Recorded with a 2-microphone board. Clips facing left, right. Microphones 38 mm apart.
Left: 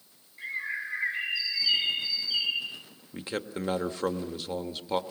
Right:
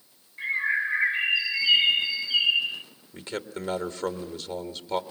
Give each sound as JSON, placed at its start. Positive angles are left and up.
{"t": 0.4, "sound": "a bird", "side_deg": -25, "distance_m": 0.8}
{"t": 3.1, "sound": "a man speaking", "side_deg": 10, "distance_m": 1.6}